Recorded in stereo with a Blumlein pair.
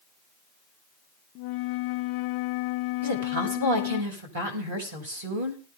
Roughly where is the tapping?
No tapping in this recording.